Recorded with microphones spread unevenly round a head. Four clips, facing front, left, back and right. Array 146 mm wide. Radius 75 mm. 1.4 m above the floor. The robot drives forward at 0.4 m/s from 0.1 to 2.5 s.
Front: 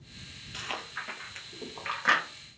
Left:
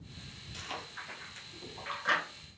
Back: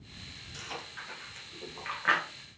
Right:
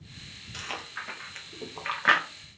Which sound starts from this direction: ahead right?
Chewing, at 0.5 s.